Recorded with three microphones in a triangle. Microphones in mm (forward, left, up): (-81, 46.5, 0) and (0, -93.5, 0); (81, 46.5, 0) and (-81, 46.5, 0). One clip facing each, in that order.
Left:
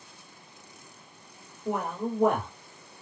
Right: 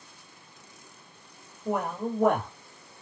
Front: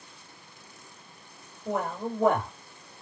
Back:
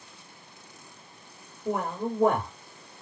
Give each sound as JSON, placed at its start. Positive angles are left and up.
{"t": 1.6, "sound": "a man speaking", "azimuth_deg": -160, "distance_m": 1.9}